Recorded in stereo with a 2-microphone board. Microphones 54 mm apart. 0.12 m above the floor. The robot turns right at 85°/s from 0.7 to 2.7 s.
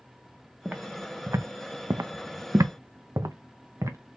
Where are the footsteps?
25° right (ahead or behind), 1.0 m; by 4.0 s 65° right (ahead or behind), 1.1 m.